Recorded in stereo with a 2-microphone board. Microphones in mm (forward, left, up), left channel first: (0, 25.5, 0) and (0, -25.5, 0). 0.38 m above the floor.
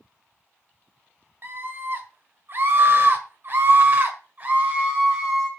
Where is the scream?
45° right (ahead or behind), 2.5 m; by 5.5 s 25° right (ahead or behind), 2 m.